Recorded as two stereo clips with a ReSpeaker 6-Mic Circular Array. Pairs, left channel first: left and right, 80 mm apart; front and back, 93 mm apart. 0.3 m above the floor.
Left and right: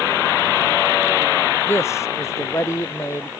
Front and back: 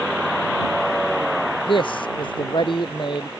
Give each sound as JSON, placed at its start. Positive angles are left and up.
{"t": 1.7, "sound": "a man speaking", "azimuth_deg": 30}